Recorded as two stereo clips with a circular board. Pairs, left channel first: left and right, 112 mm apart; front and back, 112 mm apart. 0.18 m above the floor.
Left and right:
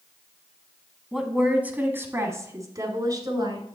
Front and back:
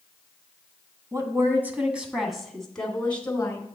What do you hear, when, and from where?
1.1 s a woman speaking: 175° right, 1.3 m; by 3.6 s 65° right, 1.8 m